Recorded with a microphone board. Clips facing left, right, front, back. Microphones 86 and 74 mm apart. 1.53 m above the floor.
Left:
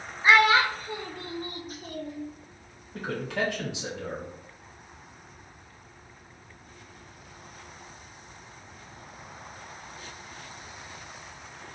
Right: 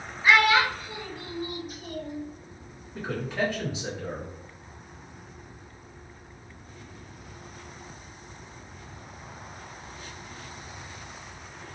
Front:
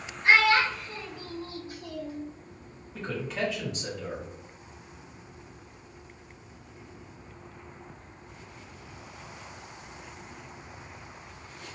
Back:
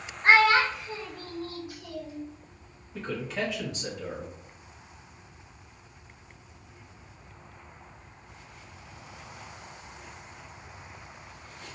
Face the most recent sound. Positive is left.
turn(degrees=90)